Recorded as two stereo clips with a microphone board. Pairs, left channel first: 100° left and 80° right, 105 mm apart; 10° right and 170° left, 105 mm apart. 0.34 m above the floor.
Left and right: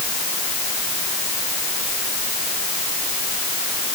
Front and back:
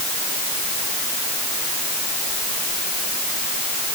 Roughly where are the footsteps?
No footsteps in this recording.